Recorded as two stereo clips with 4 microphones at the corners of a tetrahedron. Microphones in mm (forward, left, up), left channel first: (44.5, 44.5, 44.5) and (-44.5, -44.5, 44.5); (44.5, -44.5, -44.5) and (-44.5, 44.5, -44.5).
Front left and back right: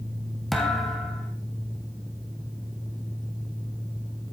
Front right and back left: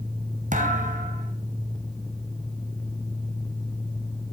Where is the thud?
135° left, 3.5 m.